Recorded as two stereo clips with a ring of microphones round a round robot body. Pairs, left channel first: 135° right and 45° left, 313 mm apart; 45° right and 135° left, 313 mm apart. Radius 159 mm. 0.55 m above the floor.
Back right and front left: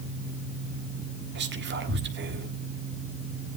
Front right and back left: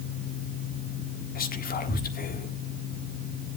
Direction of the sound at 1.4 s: 5° left.